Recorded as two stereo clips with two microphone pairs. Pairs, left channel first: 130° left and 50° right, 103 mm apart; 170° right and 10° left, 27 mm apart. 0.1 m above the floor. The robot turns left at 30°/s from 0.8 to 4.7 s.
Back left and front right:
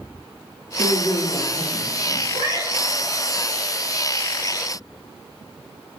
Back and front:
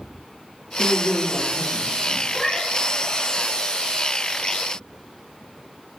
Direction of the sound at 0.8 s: 125° left.